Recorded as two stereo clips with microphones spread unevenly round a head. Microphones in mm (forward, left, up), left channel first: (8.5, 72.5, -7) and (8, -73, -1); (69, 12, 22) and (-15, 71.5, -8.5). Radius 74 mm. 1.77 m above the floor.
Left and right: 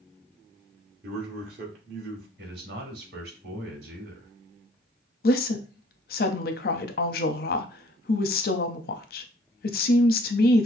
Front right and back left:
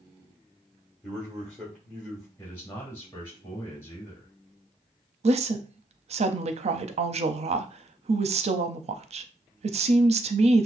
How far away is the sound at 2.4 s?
About 2.5 m.